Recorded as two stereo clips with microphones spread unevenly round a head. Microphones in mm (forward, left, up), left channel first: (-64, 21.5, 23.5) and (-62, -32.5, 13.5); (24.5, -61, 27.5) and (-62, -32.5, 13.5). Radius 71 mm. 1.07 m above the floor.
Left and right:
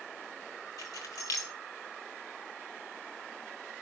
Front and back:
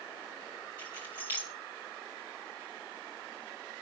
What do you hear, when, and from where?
0.8 s keys jangling: 85° left, 1.8 m